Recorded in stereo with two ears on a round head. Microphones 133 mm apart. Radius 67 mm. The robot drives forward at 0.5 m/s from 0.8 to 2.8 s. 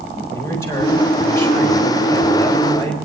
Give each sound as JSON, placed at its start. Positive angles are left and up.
{"t": 0.3, "sound": "a man speaking", "side_deg": 20, "distance_m": 4.0}